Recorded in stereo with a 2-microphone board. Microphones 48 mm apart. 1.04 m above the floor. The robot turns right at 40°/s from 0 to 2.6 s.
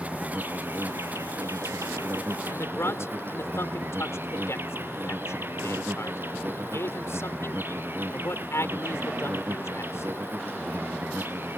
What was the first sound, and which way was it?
An insect, 155° right.